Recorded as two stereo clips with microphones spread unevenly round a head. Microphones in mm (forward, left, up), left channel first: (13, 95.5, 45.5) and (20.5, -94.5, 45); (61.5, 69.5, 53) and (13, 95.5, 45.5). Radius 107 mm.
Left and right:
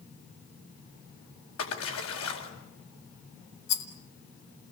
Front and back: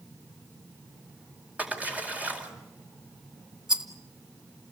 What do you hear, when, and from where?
1.6 s a splash: 85° left, 4.5 m
3.7 s a rattle: 70° left, 2.5 m